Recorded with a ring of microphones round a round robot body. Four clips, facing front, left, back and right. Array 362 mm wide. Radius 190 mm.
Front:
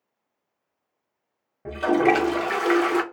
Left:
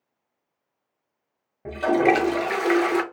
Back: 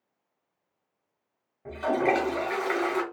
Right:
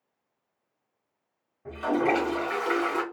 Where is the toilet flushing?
55° left, 0.6 m.